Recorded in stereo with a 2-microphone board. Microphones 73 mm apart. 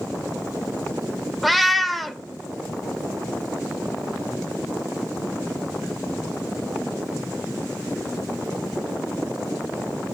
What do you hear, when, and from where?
1.4 s a cat meowing: centre (ahead or behind), 0.5 m